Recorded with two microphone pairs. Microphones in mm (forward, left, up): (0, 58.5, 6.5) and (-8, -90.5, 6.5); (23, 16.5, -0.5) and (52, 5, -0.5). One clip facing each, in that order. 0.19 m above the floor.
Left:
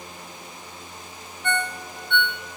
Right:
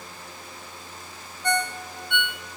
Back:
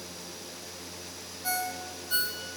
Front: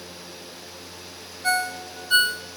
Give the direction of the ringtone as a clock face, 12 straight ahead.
1 o'clock.